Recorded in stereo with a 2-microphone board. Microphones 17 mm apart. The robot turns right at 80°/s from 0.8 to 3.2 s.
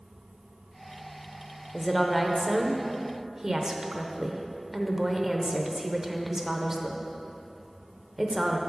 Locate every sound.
1.7 s a woman speaking: 15° left (ahead or behind), 0.8 m; by 8.6 s 25° right (ahead or behind), 0.8 m